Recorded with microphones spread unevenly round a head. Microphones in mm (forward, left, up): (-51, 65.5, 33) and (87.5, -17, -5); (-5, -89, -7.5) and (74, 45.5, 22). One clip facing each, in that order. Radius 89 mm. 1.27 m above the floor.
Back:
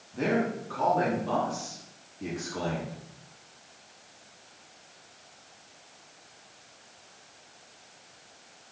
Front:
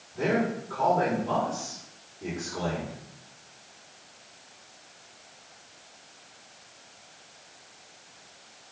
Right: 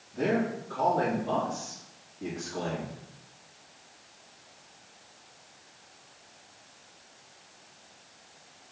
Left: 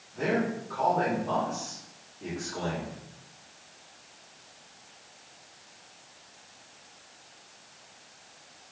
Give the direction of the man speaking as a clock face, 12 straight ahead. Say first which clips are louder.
Front 1 dB, right 1 dB; 6 o'clock.